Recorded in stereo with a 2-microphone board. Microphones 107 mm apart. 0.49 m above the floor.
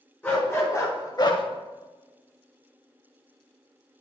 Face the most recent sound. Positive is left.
turn(degrees=55)  # may be behind; listen again after turning